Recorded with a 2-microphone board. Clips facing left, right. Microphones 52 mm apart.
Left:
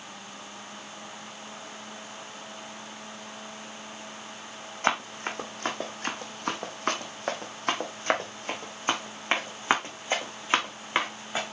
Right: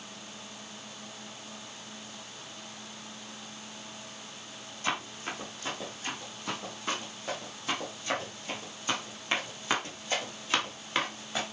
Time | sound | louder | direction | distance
4.8 | running footsteps | left 6 dB | 55° left (ahead or behind) | 2 m